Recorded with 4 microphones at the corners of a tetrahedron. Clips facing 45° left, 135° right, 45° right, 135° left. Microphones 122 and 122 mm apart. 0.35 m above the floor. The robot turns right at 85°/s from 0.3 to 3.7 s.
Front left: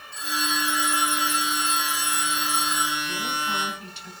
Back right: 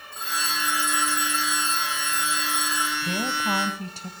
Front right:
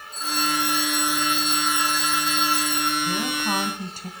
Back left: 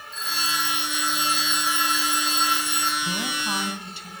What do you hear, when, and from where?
0.1 s a phone ringing: 95° right, 4.5 m; by 2.9 s 130° left, 4.5 m
3.0 s a woman speaking: 145° right, 2.5 m; by 4.1 s 90° right, 2.5 m